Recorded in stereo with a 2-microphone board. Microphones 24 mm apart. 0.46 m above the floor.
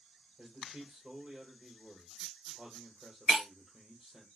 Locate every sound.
0.4 s a man speaking: 25° right (ahead or behind), 1.5 m
3.3 s breaking glass: 25° right (ahead or behind), 1.9 m